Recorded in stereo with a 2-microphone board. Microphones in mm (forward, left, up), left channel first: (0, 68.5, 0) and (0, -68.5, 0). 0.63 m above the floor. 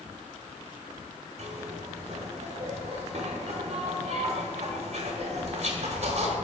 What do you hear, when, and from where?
1.4 s a zipper: 50° right (ahead or behind), 1.1 m